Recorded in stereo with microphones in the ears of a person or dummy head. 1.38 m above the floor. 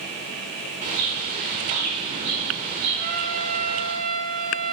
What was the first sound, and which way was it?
A bird, 40° right (ahead or behind).